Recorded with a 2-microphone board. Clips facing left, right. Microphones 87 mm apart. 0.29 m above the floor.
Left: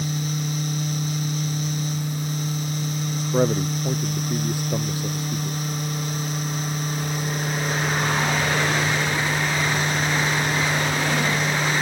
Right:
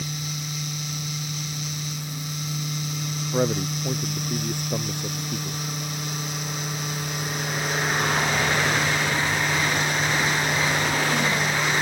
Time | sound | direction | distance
3.2 | a man speaking | 10° left (ahead or behind) | ?